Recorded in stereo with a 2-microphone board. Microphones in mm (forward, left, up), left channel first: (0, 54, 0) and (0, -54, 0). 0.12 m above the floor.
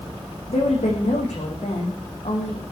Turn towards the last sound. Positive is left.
turn(degrees=80)